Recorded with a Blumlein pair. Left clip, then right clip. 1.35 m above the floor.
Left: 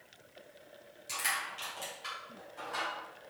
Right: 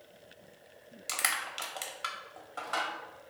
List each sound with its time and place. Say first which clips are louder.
1.1 s crushing: right 2 dB; 55° right, 0.9 m